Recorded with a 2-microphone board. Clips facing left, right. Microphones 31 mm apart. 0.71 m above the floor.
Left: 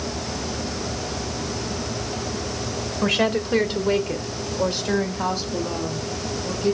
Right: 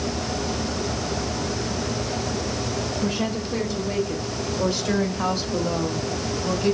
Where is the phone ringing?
I don't hear a phone ringing.